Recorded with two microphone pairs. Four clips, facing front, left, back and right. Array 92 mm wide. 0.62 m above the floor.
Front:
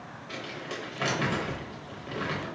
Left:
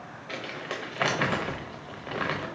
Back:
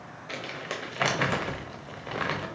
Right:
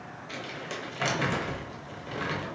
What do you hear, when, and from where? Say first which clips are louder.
0.3 s crumpling: left 3 dB, back 2 dB; 140° left, 0.5 m